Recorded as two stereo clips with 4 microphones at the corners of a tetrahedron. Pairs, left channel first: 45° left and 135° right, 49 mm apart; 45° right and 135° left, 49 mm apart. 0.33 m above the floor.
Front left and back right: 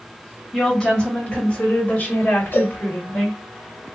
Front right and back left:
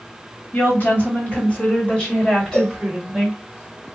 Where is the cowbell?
15° left, 0.7 m.